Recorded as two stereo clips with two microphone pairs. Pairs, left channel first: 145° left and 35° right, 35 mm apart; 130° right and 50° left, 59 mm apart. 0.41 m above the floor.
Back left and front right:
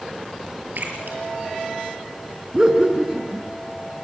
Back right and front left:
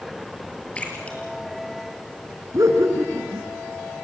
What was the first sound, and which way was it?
A splash, 60° right.